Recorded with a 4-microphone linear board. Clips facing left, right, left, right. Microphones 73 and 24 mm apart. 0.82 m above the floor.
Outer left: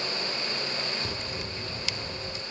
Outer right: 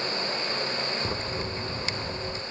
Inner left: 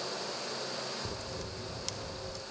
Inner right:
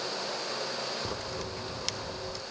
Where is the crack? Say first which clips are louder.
Outer right 4 dB, inner right 4 dB; 35° right (ahead or behind), 0.9 m.